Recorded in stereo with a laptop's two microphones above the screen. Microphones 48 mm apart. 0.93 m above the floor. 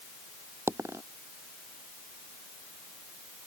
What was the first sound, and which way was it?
A dropped coin, 75° right (ahead or behind).